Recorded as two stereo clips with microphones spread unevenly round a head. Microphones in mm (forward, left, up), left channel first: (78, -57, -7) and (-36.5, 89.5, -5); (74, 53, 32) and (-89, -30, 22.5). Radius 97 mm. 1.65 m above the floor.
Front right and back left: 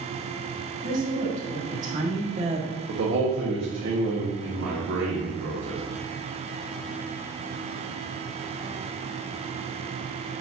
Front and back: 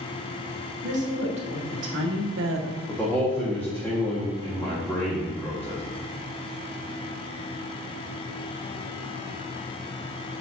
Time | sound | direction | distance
0.8 | a woman speaking | straight behind | 2.5 m
2.9 | a man speaking | 110° left | 1.5 m